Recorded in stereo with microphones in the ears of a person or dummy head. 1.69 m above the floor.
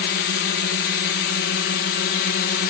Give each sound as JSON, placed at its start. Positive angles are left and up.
{"t": 0.0, "sound": "a drone", "side_deg": 55}